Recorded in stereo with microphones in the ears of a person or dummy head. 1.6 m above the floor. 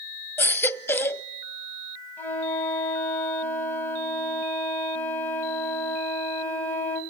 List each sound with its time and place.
0.4 s a baby crying: 10° left (ahead or behind), 0.6 m
2.2 s a flute: 10° left (ahead or behind), 4.5 m